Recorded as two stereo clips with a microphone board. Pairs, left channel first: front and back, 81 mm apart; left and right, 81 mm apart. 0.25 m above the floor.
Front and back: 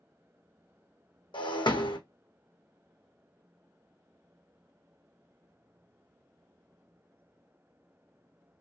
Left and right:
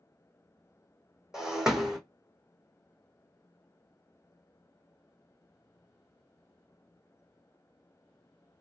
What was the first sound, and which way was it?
Breaking glass, 5° right.